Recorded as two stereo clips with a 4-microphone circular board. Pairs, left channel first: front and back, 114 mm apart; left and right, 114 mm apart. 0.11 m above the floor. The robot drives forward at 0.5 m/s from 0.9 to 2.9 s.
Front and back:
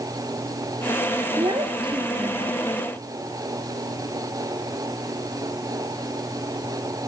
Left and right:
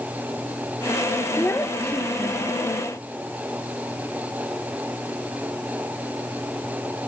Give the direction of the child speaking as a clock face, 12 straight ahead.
7 o'clock.